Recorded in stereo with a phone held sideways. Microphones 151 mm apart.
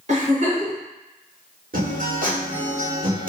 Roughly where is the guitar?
Right.